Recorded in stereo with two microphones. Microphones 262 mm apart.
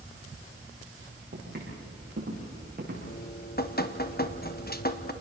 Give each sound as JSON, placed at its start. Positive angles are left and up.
{"t": 1.3, "sound": "footsteps", "side_deg": -40, "distance_m": 9.0}
{"t": 3.1, "sound": "dripping", "side_deg": 35, "distance_m": 1.1}